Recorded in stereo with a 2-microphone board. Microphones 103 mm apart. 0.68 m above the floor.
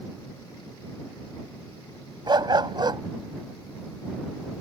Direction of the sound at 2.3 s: 45° right (ahead or behind).